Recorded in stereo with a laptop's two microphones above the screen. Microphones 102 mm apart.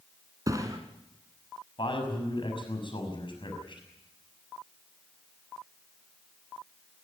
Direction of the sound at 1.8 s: 55° left (ahead or behind).